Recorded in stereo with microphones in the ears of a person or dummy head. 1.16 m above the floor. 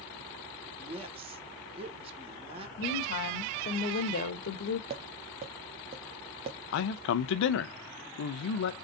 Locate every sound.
0.8 s a woman speaking: 25° right (ahead or behind), 1.0 m
2.8 s a woman speaking: 50° left (ahead or behind), 0.9 m
4.9 s tapping: 30° right (ahead or behind), 0.7 m
6.7 s a man speaking: 75° left (ahead or behind), 0.6 m